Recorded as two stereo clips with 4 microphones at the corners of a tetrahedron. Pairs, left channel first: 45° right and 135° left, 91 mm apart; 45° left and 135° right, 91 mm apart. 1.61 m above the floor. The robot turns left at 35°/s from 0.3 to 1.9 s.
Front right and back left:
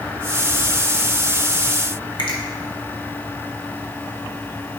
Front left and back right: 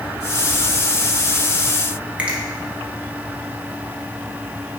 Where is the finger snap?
60° right, 1.3 m.